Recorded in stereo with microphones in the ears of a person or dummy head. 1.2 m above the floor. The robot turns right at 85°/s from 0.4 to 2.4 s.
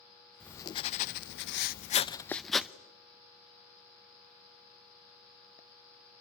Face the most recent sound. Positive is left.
turn(degrees=175)